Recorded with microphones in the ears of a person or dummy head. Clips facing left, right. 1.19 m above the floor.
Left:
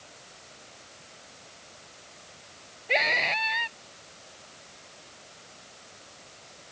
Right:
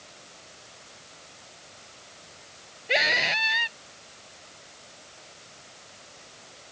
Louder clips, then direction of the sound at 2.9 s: Right 1 dB; 10° right (ahead or behind).